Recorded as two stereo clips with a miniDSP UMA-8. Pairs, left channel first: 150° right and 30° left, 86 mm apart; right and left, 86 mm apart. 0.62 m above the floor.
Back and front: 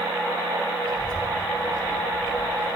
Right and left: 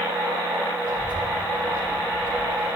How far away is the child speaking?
About 3 m.